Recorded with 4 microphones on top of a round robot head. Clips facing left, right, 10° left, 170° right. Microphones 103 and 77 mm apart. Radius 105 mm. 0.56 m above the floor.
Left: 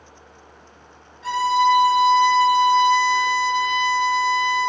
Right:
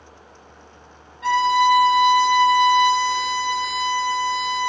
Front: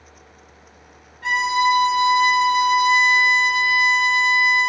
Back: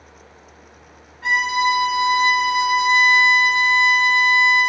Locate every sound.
1.2 s a violin: 95° right, 1.0 m